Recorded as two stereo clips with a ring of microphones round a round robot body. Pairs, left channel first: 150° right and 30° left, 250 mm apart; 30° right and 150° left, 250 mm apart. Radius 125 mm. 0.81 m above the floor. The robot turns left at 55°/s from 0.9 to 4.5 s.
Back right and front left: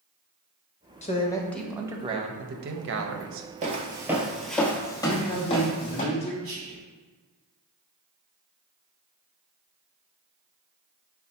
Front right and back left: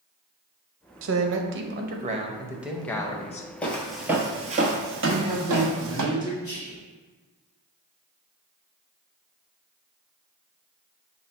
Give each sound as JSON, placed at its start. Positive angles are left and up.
{"t": 1.0, "sound": "a man speaking", "azimuth_deg": 155, "distance_m": 0.6}
{"t": 3.6, "sound": "footsteps", "azimuth_deg": 50, "distance_m": 0.9}
{"t": 5.0, "sound": "a man speaking", "azimuth_deg": -160, "distance_m": 0.7}
{"t": 6.4, "sound": "whispering", "azimuth_deg": 20, "distance_m": 2.0}